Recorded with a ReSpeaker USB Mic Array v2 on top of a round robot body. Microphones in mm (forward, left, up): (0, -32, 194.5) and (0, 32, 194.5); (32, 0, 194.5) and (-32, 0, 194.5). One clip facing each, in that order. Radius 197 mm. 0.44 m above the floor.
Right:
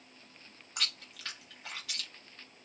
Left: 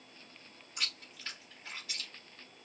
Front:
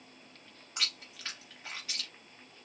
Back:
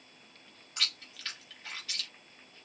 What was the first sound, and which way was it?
Chewing, 70° right.